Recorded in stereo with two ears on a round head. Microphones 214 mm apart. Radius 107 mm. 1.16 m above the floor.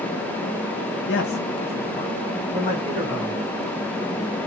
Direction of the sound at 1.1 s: 50° left (ahead or behind).